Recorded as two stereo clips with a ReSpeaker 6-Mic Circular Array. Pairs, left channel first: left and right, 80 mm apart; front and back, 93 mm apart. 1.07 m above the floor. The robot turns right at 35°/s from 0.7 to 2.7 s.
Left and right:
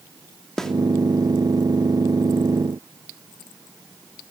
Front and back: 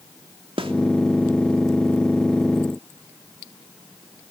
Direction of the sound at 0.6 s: 175° left.